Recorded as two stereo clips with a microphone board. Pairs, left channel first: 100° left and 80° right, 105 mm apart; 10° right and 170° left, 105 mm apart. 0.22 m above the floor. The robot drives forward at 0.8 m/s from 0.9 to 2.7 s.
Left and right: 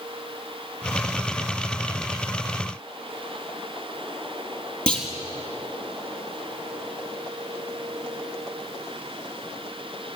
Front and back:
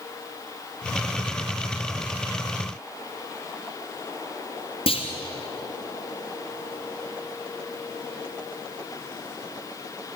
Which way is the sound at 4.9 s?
20° left.